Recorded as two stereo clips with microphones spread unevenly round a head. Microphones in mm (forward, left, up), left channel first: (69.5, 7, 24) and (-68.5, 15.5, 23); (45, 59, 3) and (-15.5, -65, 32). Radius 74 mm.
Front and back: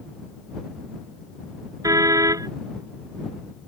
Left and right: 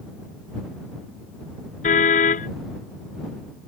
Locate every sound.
1.8 s a car horn: 110° left